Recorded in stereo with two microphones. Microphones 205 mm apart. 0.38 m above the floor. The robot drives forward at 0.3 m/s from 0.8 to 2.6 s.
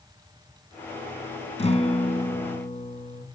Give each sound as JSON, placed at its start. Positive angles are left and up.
{"t": 1.6, "sound": "a guitar", "side_deg": 30, "distance_m": 3.0}